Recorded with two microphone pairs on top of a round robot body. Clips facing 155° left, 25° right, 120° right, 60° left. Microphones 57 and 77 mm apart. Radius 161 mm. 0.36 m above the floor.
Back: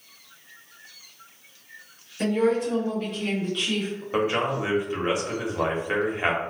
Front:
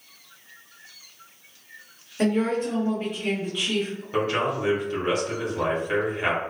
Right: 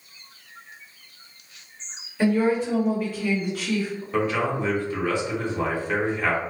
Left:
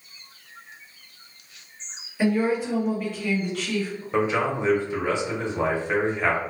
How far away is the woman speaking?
About 1.5 m.